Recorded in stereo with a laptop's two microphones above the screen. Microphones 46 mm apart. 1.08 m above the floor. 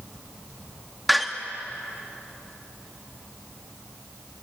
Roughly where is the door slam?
Centre.